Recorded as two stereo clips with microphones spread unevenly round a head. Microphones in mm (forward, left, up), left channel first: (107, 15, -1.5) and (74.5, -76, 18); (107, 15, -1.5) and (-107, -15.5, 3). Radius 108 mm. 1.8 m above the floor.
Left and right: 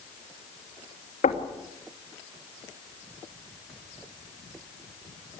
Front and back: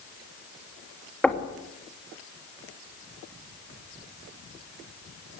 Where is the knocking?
95° left, 3 m.